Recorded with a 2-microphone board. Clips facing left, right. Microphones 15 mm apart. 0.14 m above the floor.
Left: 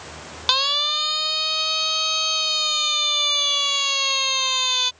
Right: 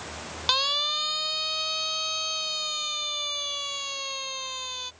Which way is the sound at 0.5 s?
15° left (ahead or behind).